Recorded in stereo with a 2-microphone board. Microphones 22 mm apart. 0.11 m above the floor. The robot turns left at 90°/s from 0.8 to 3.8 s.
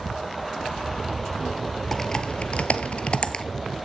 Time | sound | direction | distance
1.9 | typing on a keyboard | 15° left (ahead or behind) | 1.3 m